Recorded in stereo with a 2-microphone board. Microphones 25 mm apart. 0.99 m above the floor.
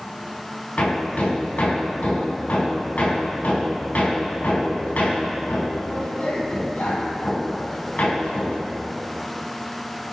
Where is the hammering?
85° left, 5 m.